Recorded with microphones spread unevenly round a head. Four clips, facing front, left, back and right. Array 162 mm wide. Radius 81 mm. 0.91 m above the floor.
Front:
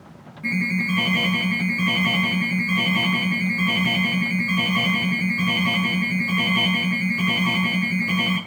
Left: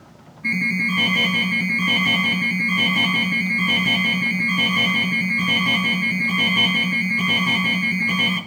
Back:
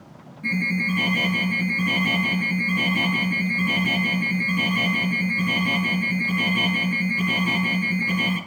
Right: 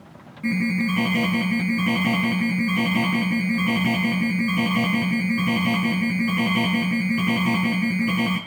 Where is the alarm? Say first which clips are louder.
Right 2 dB, front 1 dB; 105° right, 7 m.